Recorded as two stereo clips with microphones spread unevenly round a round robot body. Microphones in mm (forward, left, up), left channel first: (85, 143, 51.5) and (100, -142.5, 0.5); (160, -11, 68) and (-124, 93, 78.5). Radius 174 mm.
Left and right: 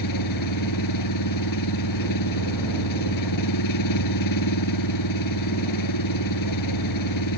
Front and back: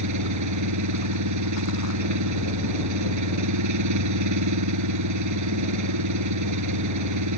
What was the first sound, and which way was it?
An engine running, 130° left.